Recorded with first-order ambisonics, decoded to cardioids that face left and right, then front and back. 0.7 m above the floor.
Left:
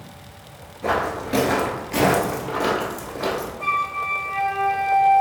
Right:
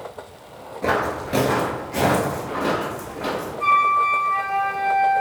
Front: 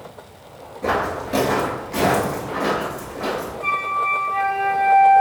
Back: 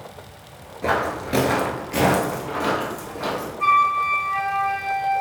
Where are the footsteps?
125° right, 0.7 m; by 3.5 s 110° left, 1.7 m.